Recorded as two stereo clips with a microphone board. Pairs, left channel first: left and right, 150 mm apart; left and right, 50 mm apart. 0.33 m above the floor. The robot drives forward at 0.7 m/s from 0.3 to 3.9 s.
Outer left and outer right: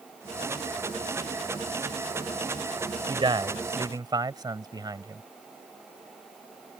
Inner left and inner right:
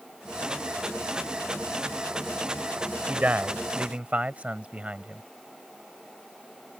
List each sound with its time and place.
3.1 s a man speaking: 35° right (ahead or behind); by 5.2 s 30° right (ahead or behind)